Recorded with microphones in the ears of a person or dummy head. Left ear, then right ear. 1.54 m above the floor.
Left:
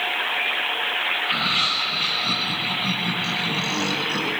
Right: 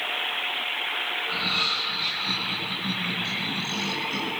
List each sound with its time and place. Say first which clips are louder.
1.2 s laughter: left 2 dB; 75° left (ahead or behind), 10 m; by 4.3 s 85° left, 10.5 m